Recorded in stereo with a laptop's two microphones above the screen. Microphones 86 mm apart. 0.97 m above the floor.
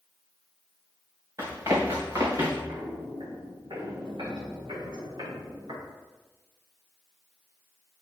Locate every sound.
1.4 s running footsteps: 40° right (ahead or behind), 4 m; by 2.6 s 45° right (ahead or behind), 4.5 m
2.7 s footsteps: 65° right (ahead or behind), 3 m